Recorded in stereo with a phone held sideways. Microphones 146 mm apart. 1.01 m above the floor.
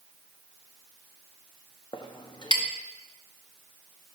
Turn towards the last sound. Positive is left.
turn(degrees=30)  # may be behind; listen again after turning